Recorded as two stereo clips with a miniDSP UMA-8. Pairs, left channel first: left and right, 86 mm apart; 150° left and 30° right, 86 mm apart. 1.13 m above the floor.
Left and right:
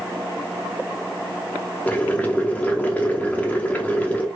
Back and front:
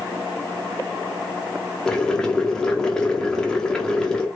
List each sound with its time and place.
1.9 s boiling: 90° left, 0.6 m